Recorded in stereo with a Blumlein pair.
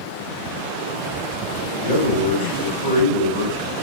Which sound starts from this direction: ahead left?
A man speaking, at 1.8 s.